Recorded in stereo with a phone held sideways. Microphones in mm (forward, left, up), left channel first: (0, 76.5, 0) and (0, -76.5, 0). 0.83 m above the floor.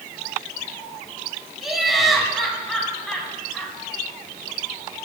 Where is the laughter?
Centre (ahead or behind), 8 m; by 3.7 s 5° left (ahead or behind), 8.5 m.